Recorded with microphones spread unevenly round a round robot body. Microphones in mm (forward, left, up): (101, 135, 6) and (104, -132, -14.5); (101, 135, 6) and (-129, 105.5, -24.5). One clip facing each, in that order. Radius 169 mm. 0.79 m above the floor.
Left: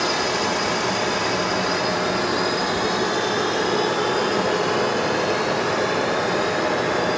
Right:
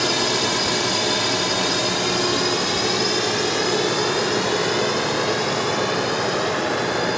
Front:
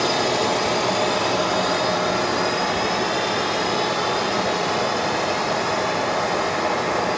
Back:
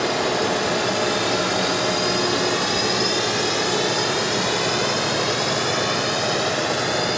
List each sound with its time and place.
0.0 s a drone: 75° right; by 7.2 s 170° right